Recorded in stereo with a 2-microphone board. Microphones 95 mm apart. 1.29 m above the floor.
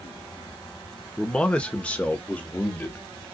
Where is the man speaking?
10° left (ahead or behind), 0.9 m; by 3.0 s 15° left (ahead or behind), 1.8 m.